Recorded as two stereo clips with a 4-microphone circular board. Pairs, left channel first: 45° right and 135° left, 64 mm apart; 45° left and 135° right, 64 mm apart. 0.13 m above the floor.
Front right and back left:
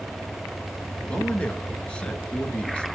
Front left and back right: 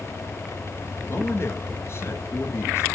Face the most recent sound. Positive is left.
turn(degrees=25)